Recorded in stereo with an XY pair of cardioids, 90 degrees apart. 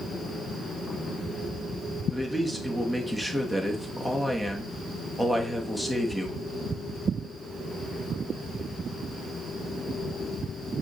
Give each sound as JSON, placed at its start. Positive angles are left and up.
{"t": 2.1, "sound": "a man speaking", "azimuth_deg": 5, "distance_m": 1.2}